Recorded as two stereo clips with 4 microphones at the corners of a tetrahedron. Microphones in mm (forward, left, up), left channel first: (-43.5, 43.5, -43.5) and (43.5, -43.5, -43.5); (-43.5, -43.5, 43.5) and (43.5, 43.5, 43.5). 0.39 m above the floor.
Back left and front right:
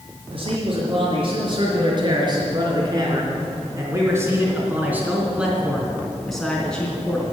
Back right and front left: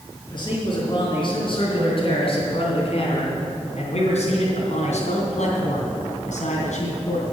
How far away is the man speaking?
About 5 m.